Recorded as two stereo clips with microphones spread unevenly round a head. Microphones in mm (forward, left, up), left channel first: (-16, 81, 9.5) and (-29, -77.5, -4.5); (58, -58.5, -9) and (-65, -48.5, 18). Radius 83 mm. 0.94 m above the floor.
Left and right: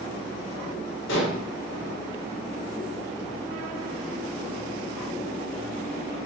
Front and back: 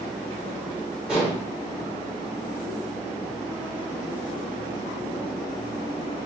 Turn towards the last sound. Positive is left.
turn(degrees=90)